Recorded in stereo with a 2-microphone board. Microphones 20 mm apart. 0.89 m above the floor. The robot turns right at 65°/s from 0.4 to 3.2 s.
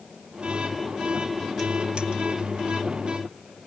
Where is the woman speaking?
No woman speaking in this recording.